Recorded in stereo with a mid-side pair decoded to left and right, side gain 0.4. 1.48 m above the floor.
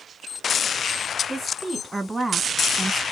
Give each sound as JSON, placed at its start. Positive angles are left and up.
{"t": 1.3, "sound": "a woman speaking", "azimuth_deg": -15, "distance_m": 1.3}